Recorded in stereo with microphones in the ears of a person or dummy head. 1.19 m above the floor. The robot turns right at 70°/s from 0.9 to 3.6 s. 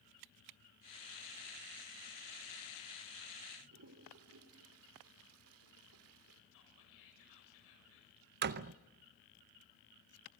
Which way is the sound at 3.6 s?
75° right (ahead or behind).